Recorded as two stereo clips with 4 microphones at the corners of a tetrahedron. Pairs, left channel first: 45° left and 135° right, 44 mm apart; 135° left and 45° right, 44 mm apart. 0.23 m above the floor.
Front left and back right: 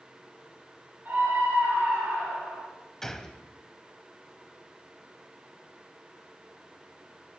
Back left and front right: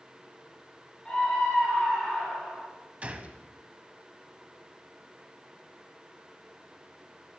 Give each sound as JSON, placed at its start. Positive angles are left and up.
{"t": 1.1, "sound": "a scream", "azimuth_deg": -165, "distance_m": 3.0}
{"t": 3.0, "sound": "a gunshot", "azimuth_deg": -25, "distance_m": 0.8}